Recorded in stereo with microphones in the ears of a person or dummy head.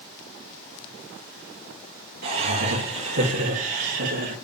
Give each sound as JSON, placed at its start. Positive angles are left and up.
{"t": 2.2, "sound": "laughter", "side_deg": -50, "distance_m": 1.8}